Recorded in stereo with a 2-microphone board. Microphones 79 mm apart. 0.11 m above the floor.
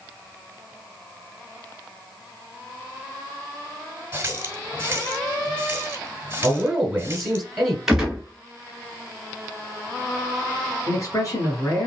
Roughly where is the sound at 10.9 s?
Left.